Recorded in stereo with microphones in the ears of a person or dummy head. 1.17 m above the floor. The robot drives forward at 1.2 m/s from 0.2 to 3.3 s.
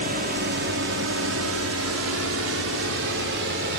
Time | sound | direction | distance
0.0 | a drone | 40° right (ahead or behind) | ?